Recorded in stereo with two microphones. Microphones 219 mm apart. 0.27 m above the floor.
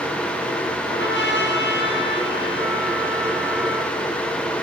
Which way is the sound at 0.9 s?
55° left (ahead or behind).